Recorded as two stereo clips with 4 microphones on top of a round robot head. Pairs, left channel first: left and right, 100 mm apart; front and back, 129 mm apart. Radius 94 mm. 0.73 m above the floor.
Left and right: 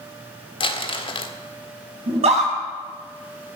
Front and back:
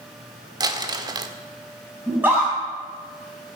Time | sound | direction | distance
0.6 | crumpling | 120° left | 1.5 m
2.1 | a scream | 105° right | 6.5 m